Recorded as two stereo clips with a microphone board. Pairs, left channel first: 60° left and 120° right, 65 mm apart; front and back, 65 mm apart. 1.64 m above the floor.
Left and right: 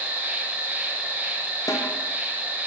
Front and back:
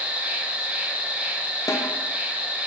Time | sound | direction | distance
0.0 | an insect | 135° right | 0.7 m
1.7 | a snare drum | 35° left | 0.6 m